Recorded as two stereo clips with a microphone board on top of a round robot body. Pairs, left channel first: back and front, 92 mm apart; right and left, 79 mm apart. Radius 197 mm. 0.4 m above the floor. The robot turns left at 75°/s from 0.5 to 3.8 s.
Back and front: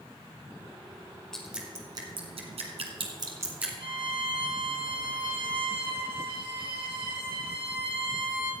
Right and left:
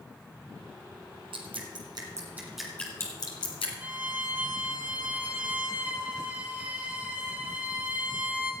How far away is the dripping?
About 1.5 m.